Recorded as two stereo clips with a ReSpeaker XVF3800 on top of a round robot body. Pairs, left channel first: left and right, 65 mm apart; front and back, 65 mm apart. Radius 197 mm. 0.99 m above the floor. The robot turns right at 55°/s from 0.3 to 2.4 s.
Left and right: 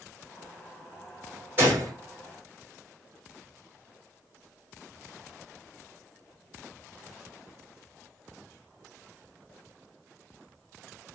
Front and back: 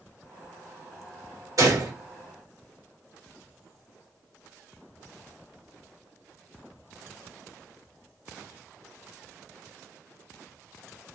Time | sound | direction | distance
1.6 | a gunshot | 150° right | 2.5 m